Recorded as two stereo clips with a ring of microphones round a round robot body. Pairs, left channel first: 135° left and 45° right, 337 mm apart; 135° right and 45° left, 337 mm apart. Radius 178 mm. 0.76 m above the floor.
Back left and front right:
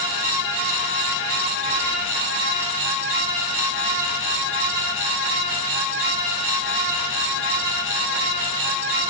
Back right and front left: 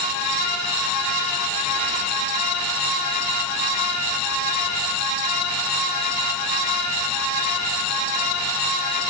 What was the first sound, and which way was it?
Only background noise.